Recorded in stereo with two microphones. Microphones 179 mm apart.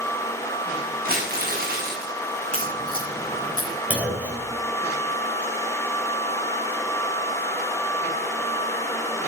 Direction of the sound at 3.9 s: 10° right (ahead or behind).